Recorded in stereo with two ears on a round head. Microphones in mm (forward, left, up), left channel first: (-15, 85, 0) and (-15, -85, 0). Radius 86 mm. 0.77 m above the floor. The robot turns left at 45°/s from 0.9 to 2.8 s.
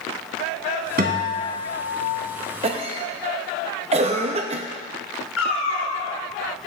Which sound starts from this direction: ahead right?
A guitar, at 1.0 s.